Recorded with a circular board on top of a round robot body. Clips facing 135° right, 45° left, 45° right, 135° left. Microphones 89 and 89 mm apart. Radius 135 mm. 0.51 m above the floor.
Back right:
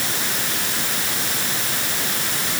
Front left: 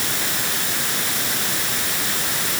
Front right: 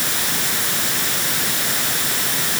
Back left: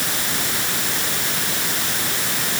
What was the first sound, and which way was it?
Only background noise.